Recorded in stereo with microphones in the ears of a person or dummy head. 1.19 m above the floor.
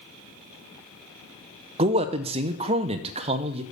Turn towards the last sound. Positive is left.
turn(degrees=-25)  # may be behind; listen again after turning